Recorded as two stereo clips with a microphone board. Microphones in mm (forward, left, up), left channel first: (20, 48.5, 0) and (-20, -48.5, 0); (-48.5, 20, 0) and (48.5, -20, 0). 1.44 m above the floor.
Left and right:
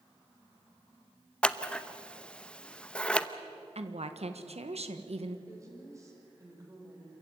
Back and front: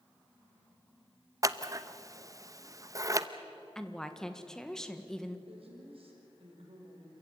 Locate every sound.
1.4 s scissors: 5° right, 0.7 m
3.8 s a woman speaking: 120° right, 1.6 m
5.5 s a woman speaking: 50° right, 5.5 m